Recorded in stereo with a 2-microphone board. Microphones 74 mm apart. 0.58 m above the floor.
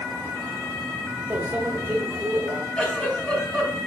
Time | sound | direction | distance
1.3 | a microwave | 20° right (ahead or behind) | 1.7 m
2.8 | a giggle | 5° left (ahead or behind) | 4 m